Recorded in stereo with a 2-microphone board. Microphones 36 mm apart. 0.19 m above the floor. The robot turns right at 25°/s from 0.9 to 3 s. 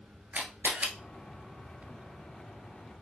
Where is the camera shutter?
50° right (ahead or behind), 1.1 m.